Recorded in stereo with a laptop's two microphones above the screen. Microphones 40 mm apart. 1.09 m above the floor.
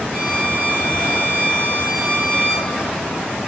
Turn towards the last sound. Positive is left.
turn(degrees=-65)  # may be behind; listen again after turning